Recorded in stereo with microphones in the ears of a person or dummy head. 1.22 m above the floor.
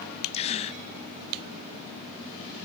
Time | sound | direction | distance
0.3 | a gasp | 35° left (ahead or behind) | 0.7 m